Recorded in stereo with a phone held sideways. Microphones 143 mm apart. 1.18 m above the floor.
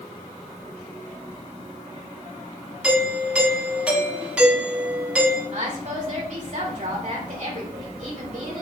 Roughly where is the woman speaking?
Right.